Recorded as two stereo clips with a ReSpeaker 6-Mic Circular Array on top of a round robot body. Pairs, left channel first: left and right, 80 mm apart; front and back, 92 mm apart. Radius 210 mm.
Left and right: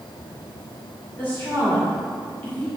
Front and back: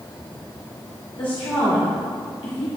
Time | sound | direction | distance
1.2 | a woman speaking | 25° left | 3 m